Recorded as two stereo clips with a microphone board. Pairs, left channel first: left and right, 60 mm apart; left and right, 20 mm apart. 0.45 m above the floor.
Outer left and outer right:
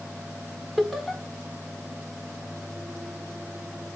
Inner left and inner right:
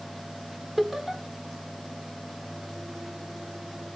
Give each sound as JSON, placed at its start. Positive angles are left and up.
{"t": 0.8, "sound": "laughter", "side_deg": 0, "distance_m": 1.4}